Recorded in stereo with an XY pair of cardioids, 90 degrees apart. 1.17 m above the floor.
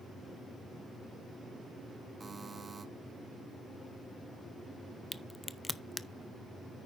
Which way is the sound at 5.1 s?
15° left.